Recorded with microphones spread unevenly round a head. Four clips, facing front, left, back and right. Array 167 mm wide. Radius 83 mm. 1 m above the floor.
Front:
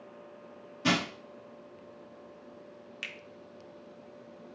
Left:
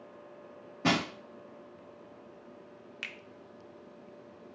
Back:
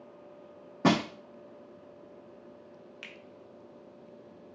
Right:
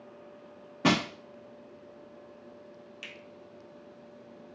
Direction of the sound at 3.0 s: 60° left.